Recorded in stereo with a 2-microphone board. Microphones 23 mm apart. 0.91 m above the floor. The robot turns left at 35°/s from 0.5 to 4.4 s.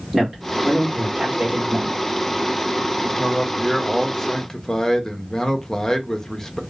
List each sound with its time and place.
0.1 s a man speaking: 15° right (ahead or behind), 1.8 m; by 2.0 s 55° right (ahead or behind), 1.8 m
3.0 s a man speaking: 155° right, 0.6 m; by 6.6 s 155° left, 0.6 m